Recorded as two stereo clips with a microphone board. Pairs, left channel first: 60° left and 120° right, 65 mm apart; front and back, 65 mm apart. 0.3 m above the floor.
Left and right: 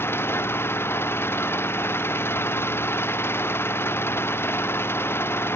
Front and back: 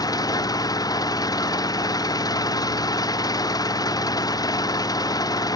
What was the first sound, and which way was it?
An engine running, 5° left.